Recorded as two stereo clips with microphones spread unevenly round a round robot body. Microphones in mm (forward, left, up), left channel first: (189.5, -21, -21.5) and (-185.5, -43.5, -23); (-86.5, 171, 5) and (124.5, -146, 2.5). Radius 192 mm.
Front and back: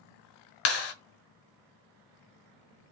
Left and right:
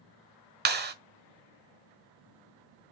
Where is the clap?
5° left, 1.1 m.